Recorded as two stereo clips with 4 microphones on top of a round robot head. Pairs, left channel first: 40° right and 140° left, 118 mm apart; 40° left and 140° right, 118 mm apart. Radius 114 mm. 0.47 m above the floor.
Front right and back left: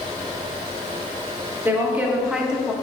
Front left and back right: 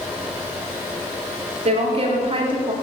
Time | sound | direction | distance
1.6 | a woman speaking | 145° right | 1.7 m